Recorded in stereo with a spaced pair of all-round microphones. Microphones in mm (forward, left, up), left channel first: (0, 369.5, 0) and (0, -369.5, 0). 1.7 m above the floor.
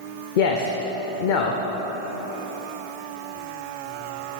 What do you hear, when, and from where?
0.4 s a man speaking: 80° left, 0.7 m